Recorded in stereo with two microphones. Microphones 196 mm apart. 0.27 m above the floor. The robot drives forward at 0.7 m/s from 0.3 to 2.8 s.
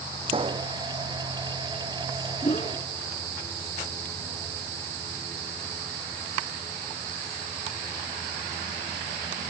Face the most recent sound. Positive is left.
turn(degrees=35)  # may be behind; listen again after turning